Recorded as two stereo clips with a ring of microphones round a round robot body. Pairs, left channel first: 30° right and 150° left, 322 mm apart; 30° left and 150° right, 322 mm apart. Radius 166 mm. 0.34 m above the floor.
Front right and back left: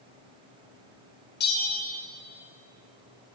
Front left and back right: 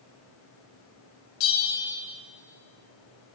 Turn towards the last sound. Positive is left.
turn(degrees=30)